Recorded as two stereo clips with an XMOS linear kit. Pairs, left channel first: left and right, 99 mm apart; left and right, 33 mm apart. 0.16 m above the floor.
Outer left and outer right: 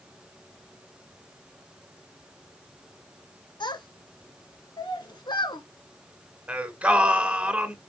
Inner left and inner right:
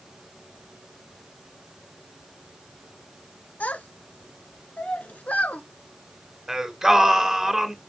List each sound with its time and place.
3.6 s a child speaking: 50° left (ahead or behind), 1.6 m
6.5 s singing: 15° right (ahead or behind), 1.9 m